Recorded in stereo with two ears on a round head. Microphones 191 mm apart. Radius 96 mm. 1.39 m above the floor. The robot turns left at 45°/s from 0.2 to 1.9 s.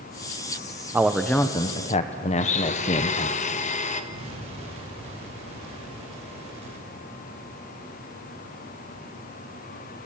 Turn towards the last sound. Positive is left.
turn(degrees=-30)  # may be behind; listen again after turning